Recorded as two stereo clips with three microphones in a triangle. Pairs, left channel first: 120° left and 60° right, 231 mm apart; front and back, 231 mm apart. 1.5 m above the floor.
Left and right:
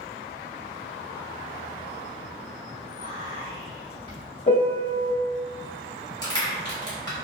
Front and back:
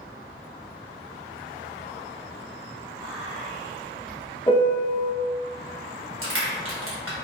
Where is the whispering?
95° right, 1.7 m.